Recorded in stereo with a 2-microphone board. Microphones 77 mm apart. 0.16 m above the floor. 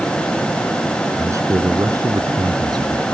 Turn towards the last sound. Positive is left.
turn(degrees=-60)  # may be behind; listen again after turning